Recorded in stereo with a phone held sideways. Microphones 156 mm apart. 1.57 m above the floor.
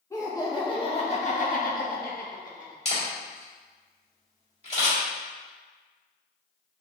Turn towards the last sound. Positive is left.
turn(degrees=40)  # may be behind; listen again after turning